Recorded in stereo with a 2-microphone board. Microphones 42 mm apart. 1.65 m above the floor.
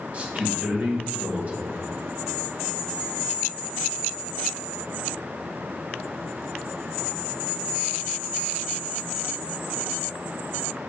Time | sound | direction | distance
0.1 | a man speaking | 35° right (ahead or behind) | 2 m